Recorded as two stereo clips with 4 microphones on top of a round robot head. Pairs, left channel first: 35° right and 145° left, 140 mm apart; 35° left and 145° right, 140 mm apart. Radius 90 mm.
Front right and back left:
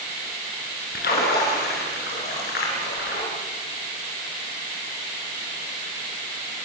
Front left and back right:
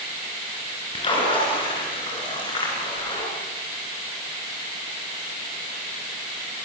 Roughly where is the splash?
Ahead right.